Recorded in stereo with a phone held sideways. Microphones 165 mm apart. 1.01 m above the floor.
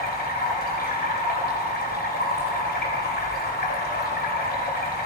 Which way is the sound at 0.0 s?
70° left (ahead or behind).